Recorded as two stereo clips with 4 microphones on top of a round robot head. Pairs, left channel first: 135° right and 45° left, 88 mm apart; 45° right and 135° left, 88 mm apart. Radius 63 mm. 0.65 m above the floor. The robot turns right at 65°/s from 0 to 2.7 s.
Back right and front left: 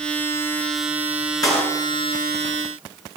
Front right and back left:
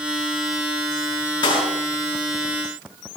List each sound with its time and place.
1.4 s a clap: 85° right, 8.5 m; by 1.7 s 65° right, 8.5 m